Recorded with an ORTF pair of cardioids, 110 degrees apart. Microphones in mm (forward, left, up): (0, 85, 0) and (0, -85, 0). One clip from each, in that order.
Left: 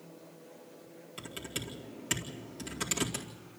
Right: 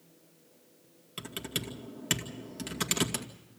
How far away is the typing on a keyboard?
About 2 m.